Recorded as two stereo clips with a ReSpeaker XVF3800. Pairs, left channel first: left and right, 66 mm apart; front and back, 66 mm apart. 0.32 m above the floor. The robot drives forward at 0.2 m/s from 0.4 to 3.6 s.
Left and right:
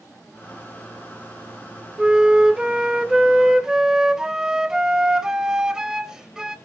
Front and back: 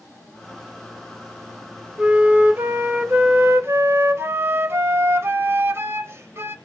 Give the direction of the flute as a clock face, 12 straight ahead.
5 o'clock.